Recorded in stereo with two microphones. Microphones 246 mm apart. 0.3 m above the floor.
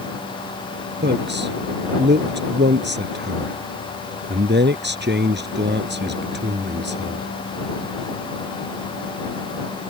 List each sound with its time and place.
1.0 s a man speaking: 45° right (ahead or behind)